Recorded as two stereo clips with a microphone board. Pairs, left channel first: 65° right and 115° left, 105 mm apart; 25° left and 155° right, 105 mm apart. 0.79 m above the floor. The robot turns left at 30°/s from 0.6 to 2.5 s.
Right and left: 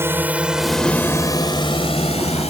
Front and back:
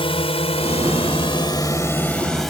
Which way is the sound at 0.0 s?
45° left.